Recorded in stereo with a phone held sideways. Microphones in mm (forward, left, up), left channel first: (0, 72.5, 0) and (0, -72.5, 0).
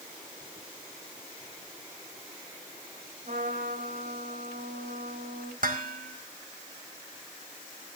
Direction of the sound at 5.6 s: 65° right (ahead or behind).